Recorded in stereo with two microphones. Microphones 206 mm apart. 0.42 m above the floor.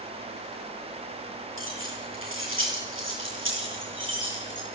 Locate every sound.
1.6 s keys jangling: 85° right, 7.5 m; by 4.7 s 65° right (ahead or behind), 10 m